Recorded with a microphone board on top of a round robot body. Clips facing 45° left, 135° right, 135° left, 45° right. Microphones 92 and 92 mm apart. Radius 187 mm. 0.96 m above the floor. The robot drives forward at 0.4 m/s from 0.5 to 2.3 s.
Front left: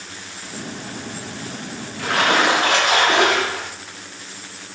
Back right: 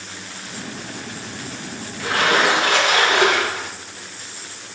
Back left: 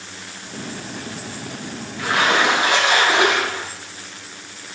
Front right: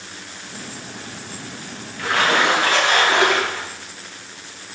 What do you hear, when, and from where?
2.0 s a splash: 60° left, 2.5 m; by 3.7 s 65° left, 2.5 m